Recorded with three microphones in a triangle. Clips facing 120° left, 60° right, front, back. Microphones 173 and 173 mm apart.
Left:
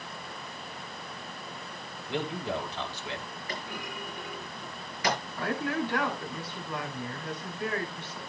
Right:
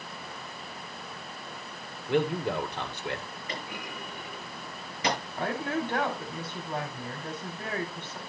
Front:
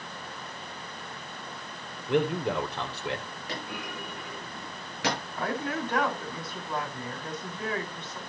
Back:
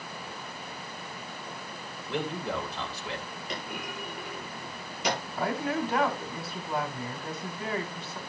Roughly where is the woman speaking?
Right.